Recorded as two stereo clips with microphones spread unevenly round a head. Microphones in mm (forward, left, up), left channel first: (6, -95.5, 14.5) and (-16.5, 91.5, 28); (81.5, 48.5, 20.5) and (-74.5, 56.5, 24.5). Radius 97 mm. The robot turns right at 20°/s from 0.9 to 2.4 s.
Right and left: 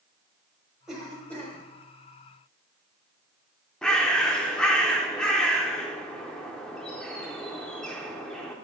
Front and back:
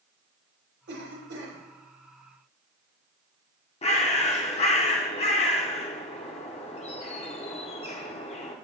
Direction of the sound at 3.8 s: 10° left.